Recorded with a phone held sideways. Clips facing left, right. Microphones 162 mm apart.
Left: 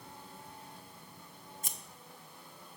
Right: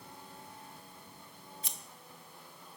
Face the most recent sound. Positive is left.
turn(degrees=45)  # may be behind; listen again after turning